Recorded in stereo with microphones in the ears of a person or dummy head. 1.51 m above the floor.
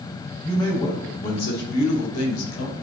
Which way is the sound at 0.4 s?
25° left (ahead or behind).